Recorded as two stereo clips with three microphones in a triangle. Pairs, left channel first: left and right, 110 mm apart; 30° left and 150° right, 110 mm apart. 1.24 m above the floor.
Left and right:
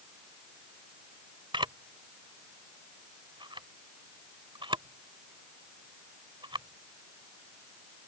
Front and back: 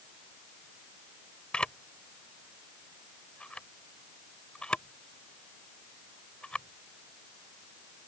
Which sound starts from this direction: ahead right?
A camera shutter, at 1.5 s.